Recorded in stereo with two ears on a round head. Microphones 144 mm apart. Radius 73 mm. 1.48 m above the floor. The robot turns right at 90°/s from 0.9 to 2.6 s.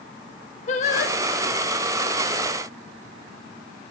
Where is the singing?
40° left (ahead or behind), 1.1 m; by 1.2 s 65° left (ahead or behind), 1.1 m.